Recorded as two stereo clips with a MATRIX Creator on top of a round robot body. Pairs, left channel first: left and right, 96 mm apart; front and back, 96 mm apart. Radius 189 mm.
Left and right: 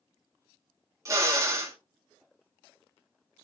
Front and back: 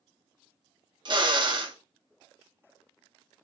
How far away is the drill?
About 2 m.